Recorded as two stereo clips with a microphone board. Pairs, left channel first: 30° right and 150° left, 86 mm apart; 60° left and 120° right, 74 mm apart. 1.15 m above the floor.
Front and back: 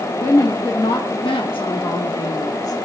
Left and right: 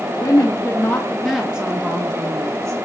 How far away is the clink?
No clink in this recording.